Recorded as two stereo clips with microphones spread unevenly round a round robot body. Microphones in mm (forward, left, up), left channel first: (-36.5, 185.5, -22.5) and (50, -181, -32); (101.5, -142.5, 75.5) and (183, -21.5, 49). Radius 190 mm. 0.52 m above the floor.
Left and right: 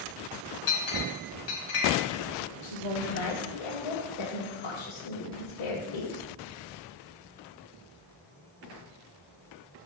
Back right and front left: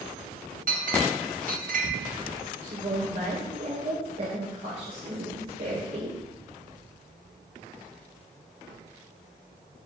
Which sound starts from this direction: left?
A woman speaking, at 2.6 s.